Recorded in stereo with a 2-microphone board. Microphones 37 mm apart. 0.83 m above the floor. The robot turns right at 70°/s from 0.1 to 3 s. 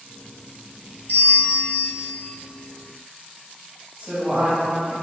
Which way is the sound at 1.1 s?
65° left.